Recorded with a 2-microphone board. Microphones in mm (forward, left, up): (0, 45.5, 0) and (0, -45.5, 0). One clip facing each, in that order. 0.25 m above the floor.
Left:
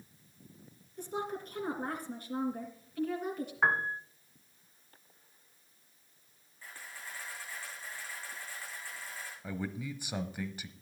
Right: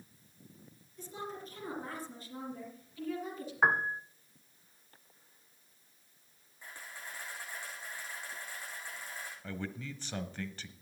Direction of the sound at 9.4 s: 10° left (ahead or behind).